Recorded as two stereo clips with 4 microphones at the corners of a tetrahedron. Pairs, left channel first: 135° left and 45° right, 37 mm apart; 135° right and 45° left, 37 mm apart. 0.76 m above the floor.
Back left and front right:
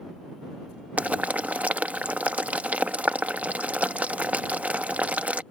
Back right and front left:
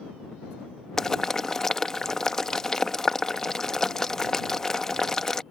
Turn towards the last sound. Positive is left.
turn(degrees=-65)